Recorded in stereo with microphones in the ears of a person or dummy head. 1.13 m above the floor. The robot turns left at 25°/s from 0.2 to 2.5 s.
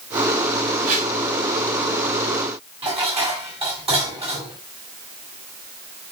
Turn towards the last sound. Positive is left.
turn(degrees=-30)  # may be behind; listen again after turning